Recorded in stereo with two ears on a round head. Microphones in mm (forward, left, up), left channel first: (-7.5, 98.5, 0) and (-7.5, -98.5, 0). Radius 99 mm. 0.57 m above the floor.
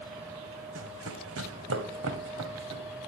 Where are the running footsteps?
65° right (ahead or behind), 1.4 m; by 2.8 s 55° right (ahead or behind), 2.5 m.